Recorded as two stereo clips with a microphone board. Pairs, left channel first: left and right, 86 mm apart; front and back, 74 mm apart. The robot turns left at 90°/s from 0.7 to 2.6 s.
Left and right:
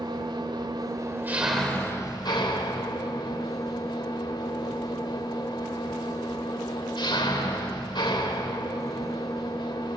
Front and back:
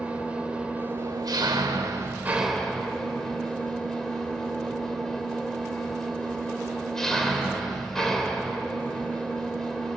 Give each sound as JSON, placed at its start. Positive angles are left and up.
{"t": 0.0, "sound": "an engine running", "azimuth_deg": -105, "distance_m": 2.5}